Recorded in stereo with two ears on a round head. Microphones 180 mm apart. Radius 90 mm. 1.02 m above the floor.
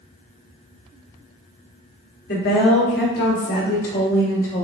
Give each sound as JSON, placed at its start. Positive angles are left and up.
{"t": 2.3, "sound": "a woman speaking", "side_deg": 55, "distance_m": 2.5}